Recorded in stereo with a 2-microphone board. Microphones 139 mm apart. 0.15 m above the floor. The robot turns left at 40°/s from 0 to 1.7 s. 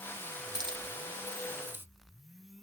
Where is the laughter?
I don't hear laughter.